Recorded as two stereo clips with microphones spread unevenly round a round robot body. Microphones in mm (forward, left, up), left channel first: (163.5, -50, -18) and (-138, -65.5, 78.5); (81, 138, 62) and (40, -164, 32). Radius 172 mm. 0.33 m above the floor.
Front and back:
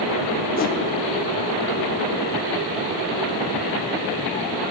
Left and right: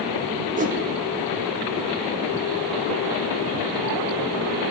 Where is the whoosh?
40° right, 0.6 m.